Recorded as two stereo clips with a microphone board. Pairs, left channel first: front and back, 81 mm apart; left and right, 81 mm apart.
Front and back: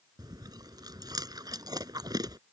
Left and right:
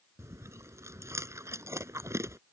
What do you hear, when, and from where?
0.2 s chewing: 145° right